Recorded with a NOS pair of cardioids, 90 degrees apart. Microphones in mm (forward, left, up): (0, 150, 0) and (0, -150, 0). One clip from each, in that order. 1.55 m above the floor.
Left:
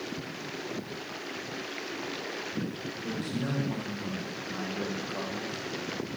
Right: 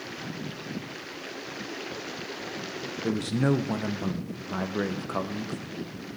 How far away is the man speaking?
About 1.0 m.